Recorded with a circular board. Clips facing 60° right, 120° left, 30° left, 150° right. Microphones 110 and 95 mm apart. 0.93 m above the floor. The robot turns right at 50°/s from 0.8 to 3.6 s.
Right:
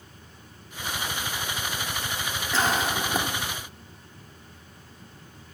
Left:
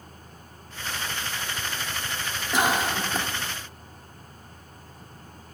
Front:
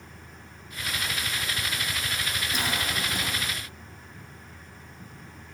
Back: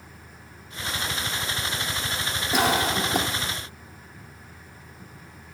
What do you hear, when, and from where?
2.5 s a cough: 165° right, 2 m; by 3.3 s 130° right, 2 m